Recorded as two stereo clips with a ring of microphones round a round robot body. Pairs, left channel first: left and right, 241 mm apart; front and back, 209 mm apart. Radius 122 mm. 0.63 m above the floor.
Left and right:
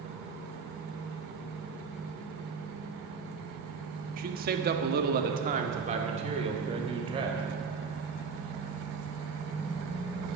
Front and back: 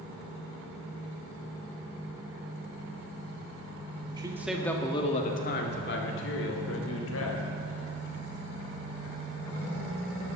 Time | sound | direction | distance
4.2 | a man speaking | 120° right | 1.3 m